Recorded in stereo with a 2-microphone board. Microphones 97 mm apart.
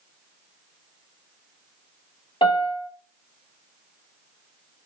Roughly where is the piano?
Left.